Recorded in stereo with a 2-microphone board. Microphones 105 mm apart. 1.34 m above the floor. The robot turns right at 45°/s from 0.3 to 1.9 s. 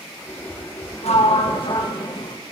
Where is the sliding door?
95° left, 1.3 m; by 2.4 s 135° left, 1.3 m.